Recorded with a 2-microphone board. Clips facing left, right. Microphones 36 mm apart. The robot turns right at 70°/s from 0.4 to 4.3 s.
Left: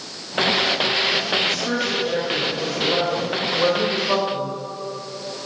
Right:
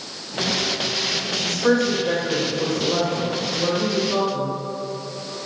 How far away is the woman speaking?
About 3 m.